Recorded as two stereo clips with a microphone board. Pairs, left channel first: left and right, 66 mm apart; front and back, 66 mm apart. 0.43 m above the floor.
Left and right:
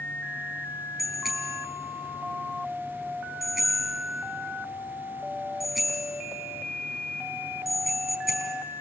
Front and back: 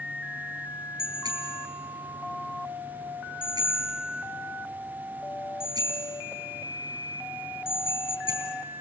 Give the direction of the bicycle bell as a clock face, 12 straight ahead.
6 o'clock.